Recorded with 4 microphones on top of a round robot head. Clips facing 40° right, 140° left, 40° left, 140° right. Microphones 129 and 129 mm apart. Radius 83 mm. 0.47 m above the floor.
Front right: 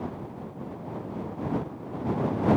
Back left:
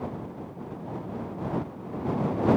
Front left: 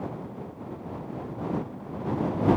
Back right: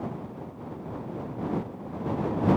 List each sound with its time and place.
Only background noise.